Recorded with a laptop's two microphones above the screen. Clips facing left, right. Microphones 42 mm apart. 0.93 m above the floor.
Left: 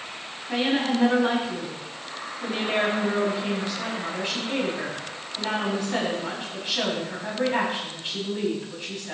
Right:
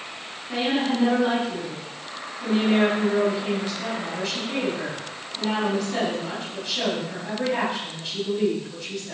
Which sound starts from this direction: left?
A woman speaking, at 0.5 s.